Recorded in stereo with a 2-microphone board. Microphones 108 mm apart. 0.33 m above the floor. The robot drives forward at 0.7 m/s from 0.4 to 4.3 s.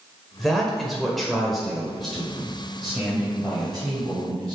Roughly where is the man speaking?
Centre.